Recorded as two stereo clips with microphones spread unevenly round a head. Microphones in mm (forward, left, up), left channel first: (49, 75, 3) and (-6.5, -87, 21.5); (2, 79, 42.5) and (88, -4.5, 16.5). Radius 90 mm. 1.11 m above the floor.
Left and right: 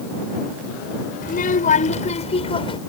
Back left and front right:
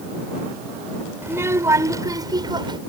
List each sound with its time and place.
1.2 s a child speaking: 30° left; by 2.8 s 10° left